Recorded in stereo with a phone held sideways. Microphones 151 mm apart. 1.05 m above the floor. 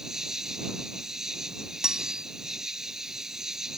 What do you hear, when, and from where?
0.0 s an insect: 5° right (ahead or behind)
1.8 s cutlery clinking: 5° right (ahead or behind)